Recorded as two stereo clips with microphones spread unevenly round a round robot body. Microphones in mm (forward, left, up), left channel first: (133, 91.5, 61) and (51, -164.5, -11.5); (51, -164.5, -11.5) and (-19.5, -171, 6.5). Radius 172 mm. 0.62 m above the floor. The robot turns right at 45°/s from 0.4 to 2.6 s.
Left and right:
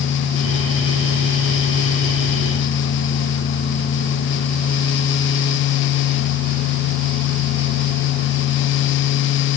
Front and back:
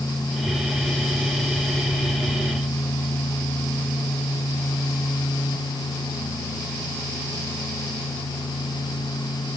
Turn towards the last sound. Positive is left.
No sound to turn to.